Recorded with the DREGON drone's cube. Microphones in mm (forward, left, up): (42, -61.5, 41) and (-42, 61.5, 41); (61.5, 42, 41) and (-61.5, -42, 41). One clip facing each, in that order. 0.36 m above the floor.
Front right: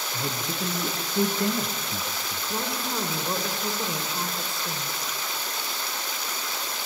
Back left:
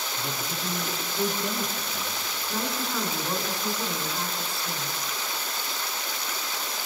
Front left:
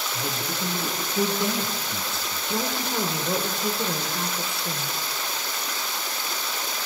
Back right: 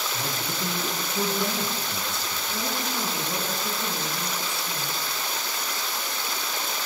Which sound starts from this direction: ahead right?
A man speaking, at 0.1 s.